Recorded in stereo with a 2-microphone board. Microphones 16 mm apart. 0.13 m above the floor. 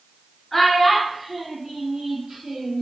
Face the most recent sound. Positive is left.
turn(degrees=-45)  # may be behind; listen again after turning